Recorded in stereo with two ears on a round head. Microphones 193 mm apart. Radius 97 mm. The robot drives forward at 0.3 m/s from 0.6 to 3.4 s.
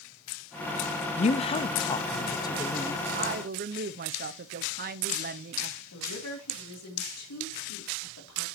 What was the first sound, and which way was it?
A woman speaking, 30° left (ahead or behind).